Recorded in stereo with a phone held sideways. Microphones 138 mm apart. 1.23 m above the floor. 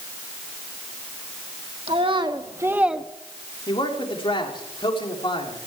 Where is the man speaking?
40° left (ahead or behind), 3.5 m.